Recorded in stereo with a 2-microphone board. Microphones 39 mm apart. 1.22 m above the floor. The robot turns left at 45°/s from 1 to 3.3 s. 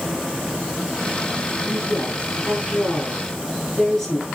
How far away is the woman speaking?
About 9.5 m.